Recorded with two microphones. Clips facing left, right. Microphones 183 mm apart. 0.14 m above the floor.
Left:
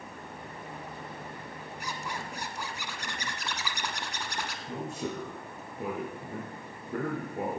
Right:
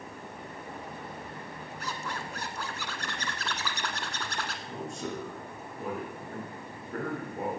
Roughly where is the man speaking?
Left.